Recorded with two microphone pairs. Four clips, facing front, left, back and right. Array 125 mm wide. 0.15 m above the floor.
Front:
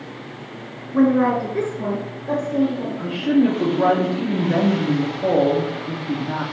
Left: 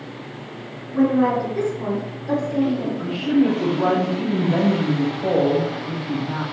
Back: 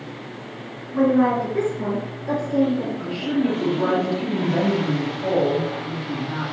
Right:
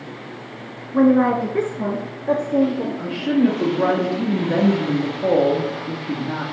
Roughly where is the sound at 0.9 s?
Ahead right.